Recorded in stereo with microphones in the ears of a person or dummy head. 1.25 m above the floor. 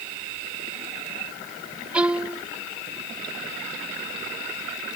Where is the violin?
10° right (ahead or behind).